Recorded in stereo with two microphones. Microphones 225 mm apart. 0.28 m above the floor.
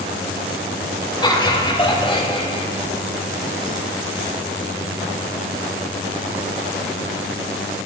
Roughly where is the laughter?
Left.